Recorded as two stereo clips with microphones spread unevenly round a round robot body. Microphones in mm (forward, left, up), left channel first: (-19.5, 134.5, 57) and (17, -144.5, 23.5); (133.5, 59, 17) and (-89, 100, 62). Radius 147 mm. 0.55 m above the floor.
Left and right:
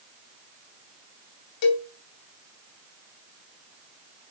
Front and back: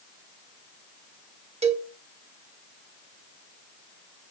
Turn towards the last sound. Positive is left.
turn(degrees=105)